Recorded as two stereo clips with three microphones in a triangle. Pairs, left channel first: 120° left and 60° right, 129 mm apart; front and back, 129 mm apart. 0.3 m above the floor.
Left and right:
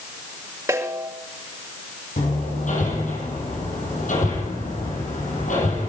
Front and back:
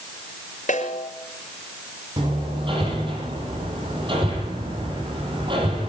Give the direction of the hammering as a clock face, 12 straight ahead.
8 o'clock.